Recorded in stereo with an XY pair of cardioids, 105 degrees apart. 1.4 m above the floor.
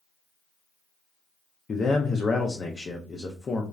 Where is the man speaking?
40° left, 0.5 m.